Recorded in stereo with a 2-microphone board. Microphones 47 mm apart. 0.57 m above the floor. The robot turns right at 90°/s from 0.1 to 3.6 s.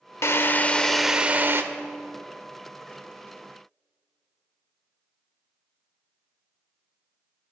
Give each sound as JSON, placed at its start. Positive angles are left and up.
{"t": 0.2, "sound": "a drill", "azimuth_deg": 110, "distance_m": 0.6}